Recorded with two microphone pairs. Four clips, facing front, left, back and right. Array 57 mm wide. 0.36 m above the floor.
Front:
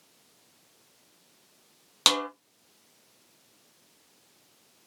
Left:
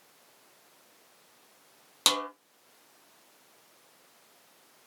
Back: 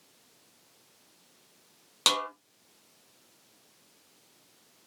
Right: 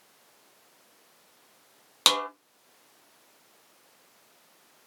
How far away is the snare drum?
About 1.1 m.